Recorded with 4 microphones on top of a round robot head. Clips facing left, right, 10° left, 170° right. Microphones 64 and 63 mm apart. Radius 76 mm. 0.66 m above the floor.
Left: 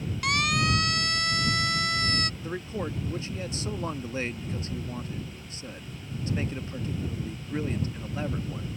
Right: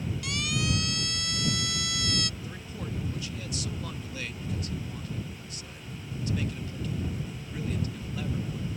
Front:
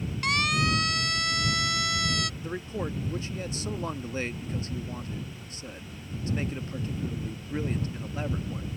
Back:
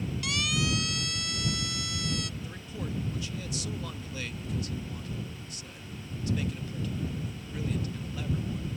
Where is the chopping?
I don't hear chopping.